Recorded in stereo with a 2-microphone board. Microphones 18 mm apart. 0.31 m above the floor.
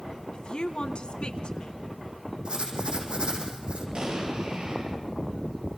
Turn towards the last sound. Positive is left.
turn(degrees=-60)  # may be behind; listen again after turning